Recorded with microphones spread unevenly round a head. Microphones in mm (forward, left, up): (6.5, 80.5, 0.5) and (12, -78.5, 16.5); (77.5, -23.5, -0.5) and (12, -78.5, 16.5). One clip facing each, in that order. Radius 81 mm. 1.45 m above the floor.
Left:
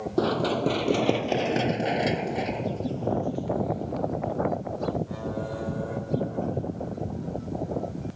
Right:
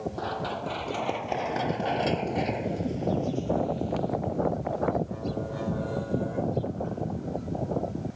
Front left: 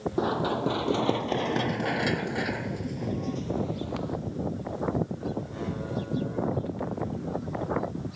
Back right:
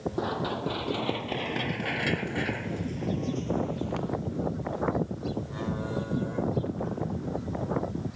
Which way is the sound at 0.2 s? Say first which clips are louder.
Left 8 dB, front left 5 dB; 120° left.